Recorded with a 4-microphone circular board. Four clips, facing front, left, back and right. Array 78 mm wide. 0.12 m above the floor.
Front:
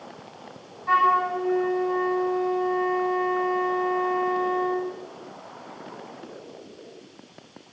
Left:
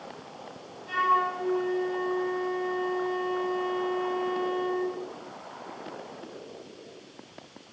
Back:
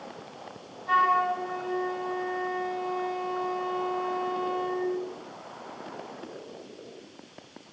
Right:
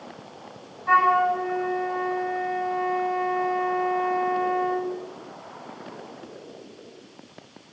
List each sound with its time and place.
0.9 s a flute: 60° right, 5.5 m